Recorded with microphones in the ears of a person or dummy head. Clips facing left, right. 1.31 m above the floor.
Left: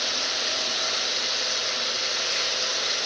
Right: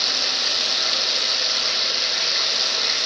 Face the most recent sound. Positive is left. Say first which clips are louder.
# right 1 dB
turn(degrees=-55)  # may be behind; listen again after turning